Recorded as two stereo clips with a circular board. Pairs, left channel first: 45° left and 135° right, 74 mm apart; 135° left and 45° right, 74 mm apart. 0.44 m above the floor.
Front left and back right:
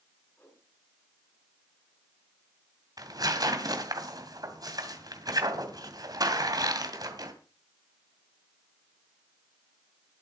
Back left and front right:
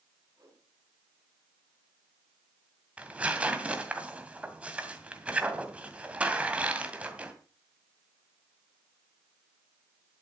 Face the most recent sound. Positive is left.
turn(degrees=-115)